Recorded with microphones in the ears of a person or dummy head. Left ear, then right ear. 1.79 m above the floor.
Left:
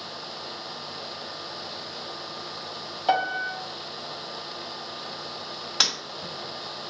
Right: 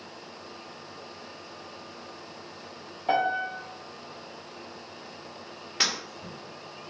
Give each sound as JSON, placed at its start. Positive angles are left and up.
{"t": 3.1, "sound": "a piano", "side_deg": 45, "distance_m": 0.7}
{"t": 5.8, "sound": "breaking glass", "side_deg": 20, "distance_m": 1.8}